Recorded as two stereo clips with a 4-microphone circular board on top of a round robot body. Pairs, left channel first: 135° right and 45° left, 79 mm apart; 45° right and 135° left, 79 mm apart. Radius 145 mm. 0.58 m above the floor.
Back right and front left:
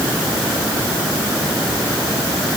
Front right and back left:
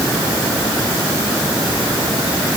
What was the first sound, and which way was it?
Only background noise.